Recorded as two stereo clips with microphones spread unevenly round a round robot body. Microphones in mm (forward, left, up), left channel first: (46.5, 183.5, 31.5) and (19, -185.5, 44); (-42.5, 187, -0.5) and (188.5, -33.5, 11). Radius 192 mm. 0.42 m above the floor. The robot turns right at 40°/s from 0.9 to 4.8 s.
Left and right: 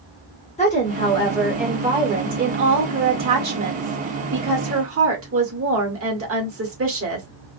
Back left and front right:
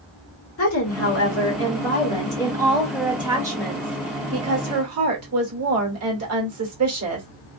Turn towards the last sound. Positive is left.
turn(degrees=-55)